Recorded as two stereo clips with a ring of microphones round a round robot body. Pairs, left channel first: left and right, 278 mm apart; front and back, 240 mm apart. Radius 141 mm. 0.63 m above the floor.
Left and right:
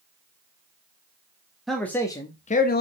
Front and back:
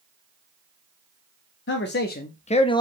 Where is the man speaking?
Straight ahead, 1.1 m; by 2.8 s 65° left, 0.9 m.